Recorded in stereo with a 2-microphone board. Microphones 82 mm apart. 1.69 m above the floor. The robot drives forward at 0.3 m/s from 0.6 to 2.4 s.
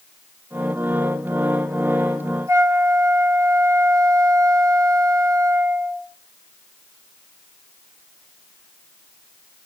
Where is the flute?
40° right (ahead or behind), 1.8 m.